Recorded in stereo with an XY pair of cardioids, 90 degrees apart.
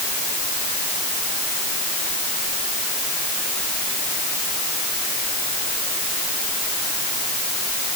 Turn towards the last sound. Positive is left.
No sound to turn to.